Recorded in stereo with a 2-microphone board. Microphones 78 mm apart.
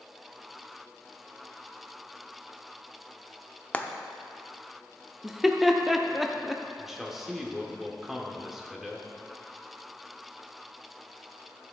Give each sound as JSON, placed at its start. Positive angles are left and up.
{"t": 3.7, "sound": "frying", "side_deg": 20, "distance_m": 0.6}
{"t": 5.2, "sound": "laughter", "side_deg": -5, "distance_m": 0.7}
{"t": 6.8, "sound": "a man speaking", "side_deg": -5, "distance_m": 1.3}